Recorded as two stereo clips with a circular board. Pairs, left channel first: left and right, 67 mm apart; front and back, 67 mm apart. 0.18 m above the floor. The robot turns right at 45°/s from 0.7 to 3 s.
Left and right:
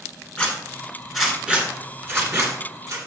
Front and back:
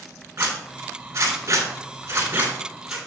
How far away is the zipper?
About 2.5 m.